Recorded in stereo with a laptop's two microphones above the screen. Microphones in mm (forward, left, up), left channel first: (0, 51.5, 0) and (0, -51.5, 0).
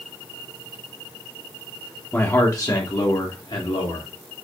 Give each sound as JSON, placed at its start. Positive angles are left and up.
{"t": 2.1, "sound": "a man speaking", "side_deg": 20, "distance_m": 1.0}